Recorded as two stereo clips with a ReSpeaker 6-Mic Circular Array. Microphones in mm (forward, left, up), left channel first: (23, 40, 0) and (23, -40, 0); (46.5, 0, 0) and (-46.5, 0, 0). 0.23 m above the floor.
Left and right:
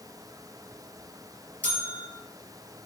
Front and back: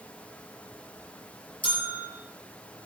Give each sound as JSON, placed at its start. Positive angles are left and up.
{"t": 1.6, "sound": "a bell", "azimuth_deg": 20, "distance_m": 4.0}